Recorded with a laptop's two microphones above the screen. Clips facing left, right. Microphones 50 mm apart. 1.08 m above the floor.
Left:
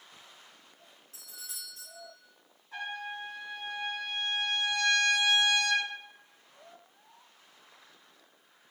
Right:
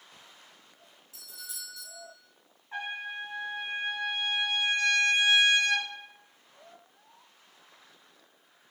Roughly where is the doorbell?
Left.